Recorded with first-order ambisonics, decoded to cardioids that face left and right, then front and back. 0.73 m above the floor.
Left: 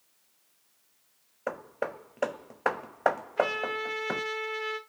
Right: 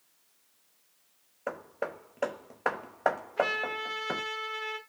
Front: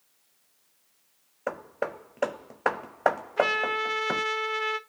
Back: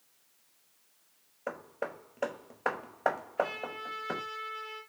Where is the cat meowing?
I don't hear a cat meowing.